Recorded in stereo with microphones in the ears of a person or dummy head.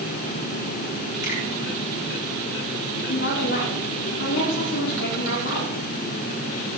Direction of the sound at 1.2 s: 55° left (ahead or behind).